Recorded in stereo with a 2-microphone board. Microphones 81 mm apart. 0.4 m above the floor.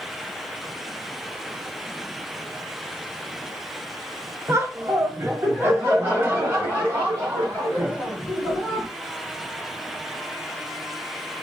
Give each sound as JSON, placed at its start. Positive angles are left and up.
{"t": 4.5, "sound": "laughter", "side_deg": -35, "distance_m": 1.0}